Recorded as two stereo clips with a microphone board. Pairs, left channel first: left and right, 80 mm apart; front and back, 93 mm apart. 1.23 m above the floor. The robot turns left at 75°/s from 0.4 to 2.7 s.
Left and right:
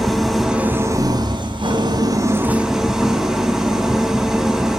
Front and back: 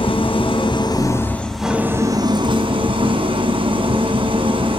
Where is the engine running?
Straight ahead, 3 m; by 4.8 s 175° right, 3 m.